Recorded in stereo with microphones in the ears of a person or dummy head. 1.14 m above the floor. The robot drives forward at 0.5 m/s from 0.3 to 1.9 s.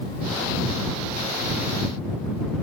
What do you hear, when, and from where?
Only background noise.